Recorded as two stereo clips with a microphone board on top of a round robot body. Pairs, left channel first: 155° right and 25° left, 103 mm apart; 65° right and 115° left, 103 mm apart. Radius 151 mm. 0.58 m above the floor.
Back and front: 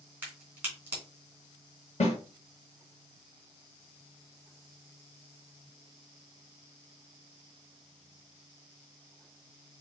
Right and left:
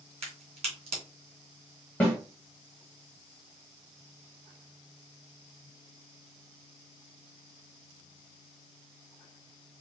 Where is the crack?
95° left, 2.5 m.